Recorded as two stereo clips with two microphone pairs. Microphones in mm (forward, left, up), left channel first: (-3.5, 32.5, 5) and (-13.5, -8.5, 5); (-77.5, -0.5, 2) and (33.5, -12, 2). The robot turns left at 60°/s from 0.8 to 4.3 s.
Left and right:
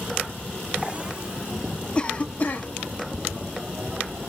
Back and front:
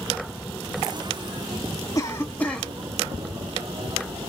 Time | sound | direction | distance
1.9 | a cough | 135° left | 1.5 m